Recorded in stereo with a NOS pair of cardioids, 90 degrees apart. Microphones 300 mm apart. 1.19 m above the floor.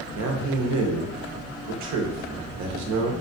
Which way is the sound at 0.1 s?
65° right.